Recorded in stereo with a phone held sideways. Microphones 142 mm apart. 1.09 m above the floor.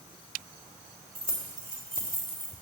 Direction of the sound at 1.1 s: 85° right.